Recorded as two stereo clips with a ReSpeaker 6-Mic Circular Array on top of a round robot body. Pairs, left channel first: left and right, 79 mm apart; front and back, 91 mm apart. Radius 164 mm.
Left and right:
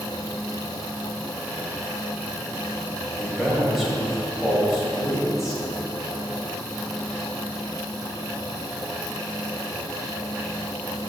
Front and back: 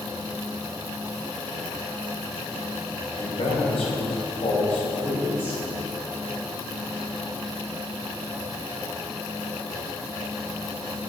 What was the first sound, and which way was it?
A man speaking, 5° right.